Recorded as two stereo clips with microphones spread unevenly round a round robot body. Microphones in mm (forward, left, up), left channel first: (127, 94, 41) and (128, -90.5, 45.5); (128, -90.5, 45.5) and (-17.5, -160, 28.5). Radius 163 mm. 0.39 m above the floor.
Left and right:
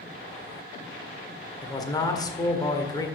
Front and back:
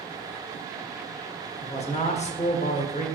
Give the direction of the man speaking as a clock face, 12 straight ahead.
11 o'clock.